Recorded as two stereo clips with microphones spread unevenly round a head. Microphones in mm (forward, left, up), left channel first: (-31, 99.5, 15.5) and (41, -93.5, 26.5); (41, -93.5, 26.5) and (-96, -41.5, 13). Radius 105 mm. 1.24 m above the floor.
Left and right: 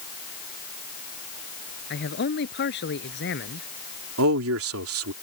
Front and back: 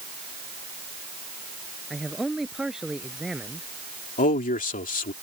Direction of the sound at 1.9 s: 70° left.